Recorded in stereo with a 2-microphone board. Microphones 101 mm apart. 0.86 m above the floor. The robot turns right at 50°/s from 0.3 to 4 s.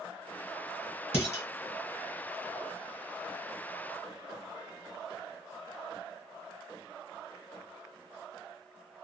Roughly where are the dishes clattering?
Left.